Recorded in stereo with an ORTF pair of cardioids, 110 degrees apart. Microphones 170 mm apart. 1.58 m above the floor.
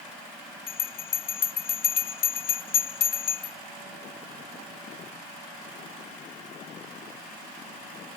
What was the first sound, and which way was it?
A bell, 60° left.